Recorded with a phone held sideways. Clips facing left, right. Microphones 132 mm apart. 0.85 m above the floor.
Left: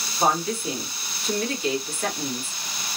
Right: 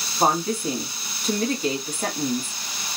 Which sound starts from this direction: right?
A woman speaking, at 0.2 s.